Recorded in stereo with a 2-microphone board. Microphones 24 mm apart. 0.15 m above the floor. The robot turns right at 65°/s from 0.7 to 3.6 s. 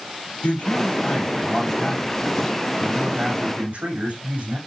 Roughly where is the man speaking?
Left.